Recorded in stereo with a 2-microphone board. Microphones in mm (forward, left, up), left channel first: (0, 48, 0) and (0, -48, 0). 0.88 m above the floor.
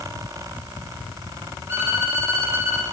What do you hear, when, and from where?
1.7 s a violin: 25° right (ahead or behind), 2.5 m